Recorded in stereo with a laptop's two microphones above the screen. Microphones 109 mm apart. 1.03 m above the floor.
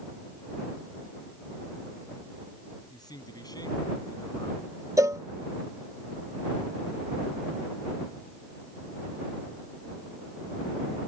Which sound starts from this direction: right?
A cowbell, at 5.0 s.